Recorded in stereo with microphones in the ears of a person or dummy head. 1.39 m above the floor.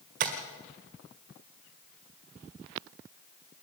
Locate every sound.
0.2 s tapping: 45° right (ahead or behind), 1.9 m